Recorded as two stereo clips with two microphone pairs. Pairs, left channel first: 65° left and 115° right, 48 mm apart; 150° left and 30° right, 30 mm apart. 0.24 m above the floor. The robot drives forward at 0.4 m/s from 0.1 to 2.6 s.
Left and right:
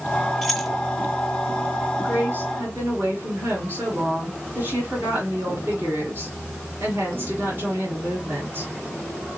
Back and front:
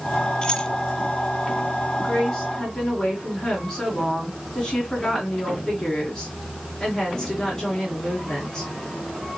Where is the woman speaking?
130° right, 2.5 m; by 8.7 s 135° right, 2.5 m.